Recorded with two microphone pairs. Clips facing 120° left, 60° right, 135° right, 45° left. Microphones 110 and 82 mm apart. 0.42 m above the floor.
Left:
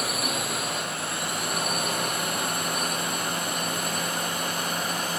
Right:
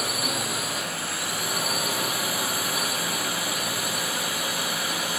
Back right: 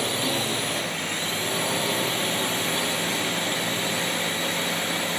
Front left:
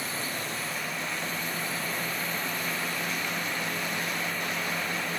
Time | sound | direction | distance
0.0 | a drone | 150° right | ?